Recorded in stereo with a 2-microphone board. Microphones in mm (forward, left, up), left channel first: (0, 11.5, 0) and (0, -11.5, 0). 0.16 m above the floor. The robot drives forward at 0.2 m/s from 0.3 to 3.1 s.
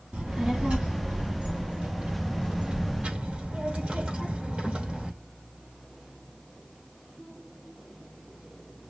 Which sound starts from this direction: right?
A child speaking, at 0.1 s.